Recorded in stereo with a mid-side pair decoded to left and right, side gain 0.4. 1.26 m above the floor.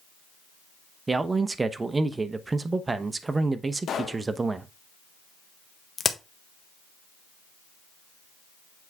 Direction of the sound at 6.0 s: 45° left.